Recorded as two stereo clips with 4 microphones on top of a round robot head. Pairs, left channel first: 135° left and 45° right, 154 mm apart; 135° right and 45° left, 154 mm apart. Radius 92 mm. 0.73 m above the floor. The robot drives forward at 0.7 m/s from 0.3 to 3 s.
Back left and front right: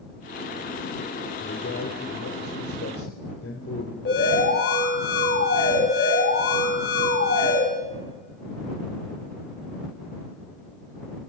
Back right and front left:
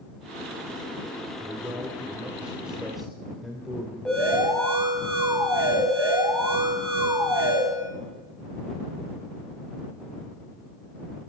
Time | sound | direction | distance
1.4 | a man speaking | 115° left | 2.5 m
4.0 | an alarm | 140° left | 7.5 m